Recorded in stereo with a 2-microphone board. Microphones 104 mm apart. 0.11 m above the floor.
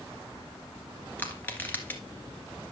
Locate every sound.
1.2 s crushing: 20° left (ahead or behind), 1.7 m